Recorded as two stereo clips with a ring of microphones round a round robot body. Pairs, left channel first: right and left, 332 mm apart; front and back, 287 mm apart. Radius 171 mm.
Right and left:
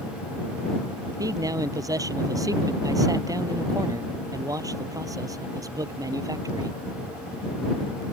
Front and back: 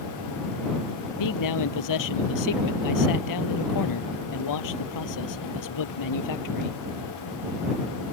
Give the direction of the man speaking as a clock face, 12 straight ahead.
12 o'clock.